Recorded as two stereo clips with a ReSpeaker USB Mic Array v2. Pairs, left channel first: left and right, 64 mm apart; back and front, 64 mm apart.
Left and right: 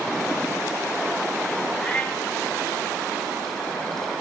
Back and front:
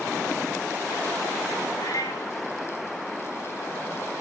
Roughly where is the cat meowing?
Behind.